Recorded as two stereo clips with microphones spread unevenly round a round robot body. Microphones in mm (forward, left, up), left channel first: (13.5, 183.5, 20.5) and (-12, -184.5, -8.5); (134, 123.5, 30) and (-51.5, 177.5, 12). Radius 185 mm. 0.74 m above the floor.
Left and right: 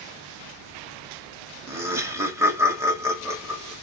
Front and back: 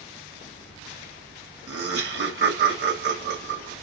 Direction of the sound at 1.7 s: 175° right.